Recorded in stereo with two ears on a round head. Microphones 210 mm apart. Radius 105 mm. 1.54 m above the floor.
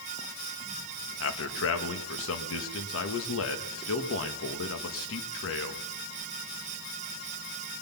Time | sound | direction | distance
1.2 | a man speaking | 60° left (ahead or behind) | 1.5 m